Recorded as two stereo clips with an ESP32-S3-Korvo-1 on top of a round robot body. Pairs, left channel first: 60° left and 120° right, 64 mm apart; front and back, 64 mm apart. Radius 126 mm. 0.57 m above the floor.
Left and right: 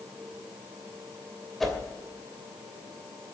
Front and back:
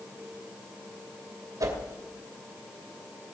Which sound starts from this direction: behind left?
A whoosh, at 1.6 s.